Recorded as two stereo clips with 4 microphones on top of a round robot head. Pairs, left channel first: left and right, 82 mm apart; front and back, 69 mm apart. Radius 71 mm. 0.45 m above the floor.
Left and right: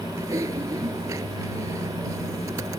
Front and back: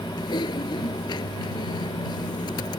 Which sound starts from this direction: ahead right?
Typing on a keyboard, at 0.2 s.